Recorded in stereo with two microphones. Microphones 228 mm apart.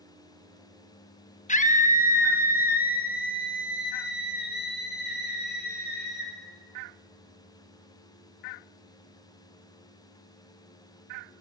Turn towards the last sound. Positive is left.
turn(degrees=45)  # may be behind; listen again after turning